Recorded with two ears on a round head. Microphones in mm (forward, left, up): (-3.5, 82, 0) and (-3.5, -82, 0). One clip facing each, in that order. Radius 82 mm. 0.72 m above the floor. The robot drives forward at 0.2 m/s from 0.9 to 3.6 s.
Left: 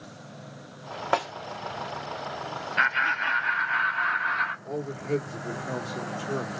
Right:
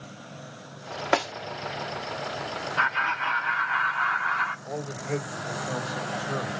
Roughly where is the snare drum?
Right.